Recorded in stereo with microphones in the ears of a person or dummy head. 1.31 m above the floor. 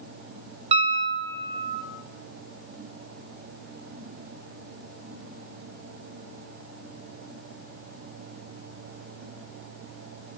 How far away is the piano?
About 1.4 m.